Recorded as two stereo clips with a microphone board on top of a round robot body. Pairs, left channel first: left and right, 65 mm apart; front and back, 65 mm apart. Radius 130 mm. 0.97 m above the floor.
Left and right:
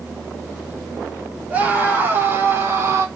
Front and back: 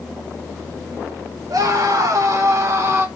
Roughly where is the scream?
Behind right.